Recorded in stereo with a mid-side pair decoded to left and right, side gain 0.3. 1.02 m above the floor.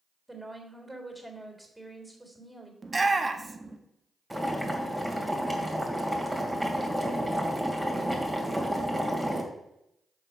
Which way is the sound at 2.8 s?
30° right.